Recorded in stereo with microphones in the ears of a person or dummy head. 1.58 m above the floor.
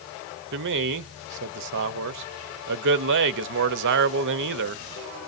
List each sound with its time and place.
0.5 s a man speaking: 65° right (ahead or behind), 0.6 m